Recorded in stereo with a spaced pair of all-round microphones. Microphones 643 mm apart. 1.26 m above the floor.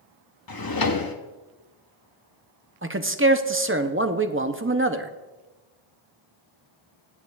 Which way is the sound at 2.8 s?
20° right (ahead or behind).